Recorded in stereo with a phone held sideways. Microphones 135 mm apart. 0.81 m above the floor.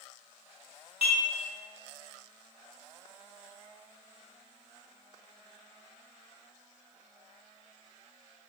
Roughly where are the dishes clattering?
Left.